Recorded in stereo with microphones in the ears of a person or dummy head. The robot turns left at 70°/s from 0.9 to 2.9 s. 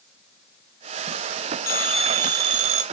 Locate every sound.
1.7 s a phone ringing: 20° left, 0.5 m; by 2.8 s 65° right, 0.5 m